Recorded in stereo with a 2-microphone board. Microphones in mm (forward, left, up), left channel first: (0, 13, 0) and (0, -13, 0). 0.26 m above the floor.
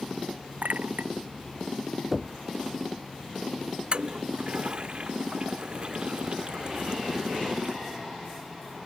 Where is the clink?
80° right.